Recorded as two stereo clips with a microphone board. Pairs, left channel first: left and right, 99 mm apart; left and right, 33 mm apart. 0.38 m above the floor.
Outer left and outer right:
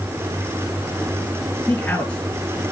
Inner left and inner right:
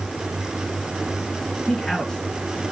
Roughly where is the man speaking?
Centre.